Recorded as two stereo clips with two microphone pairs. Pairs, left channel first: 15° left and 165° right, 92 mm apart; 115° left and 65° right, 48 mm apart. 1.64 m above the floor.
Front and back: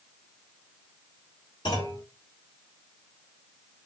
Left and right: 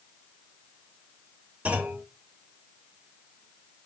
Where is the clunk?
10° right, 1.9 m.